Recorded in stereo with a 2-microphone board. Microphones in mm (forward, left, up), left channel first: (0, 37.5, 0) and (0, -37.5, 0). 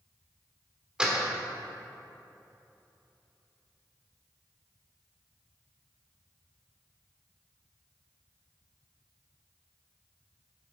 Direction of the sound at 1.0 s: 10° right (ahead or behind).